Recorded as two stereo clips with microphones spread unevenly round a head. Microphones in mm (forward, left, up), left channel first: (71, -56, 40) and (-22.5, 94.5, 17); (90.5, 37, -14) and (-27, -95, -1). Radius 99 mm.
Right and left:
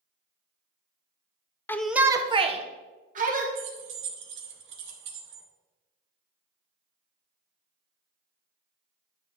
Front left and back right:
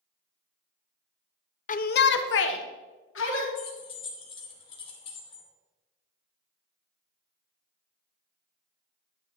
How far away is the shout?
About 0.7 m.